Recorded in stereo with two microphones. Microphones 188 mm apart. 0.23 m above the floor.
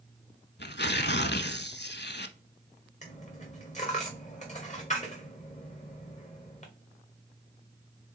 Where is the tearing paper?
65° left (ahead or behind), 0.6 m.